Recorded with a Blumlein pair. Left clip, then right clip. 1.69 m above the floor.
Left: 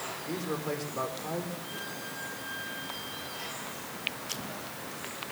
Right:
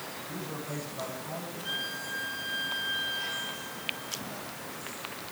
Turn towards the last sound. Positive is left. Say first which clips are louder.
# right 5 dB
turn(degrees=-30)